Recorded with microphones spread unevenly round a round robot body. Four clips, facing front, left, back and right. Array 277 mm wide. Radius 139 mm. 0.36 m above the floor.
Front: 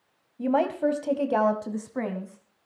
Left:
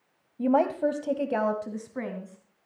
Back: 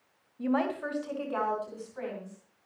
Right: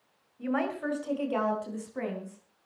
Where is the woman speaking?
65° left, 2 m; by 2.4 s 5° left, 3 m.